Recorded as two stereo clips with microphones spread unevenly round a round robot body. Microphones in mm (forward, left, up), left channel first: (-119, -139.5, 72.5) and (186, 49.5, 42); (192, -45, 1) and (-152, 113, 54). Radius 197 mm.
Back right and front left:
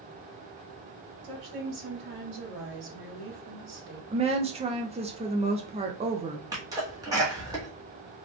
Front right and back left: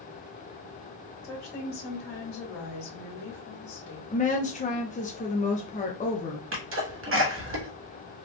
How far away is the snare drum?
I don't hear a snare drum.